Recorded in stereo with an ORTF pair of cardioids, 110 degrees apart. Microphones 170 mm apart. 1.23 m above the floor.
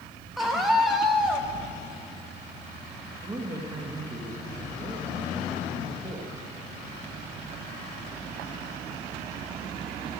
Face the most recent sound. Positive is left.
turn(degrees=-20)